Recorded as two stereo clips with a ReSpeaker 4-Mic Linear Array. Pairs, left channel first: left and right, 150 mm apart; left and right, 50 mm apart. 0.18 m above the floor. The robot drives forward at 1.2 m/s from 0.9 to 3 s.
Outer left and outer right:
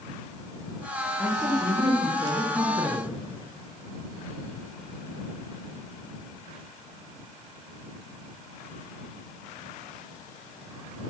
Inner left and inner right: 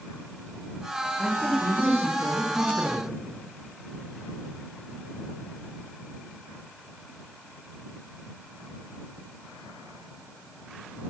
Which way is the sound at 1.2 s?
15° right (ahead or behind).